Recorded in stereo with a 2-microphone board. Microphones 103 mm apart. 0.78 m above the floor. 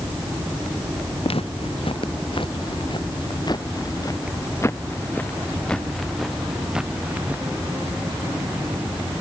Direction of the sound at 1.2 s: 65° left (ahead or behind).